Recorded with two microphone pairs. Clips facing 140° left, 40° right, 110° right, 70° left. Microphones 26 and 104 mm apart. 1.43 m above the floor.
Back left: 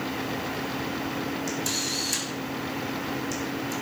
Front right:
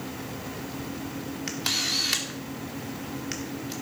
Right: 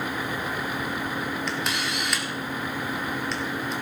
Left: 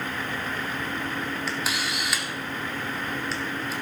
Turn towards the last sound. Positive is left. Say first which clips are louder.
# front right 1 dB, right 1 dB
turn(degrees=-20)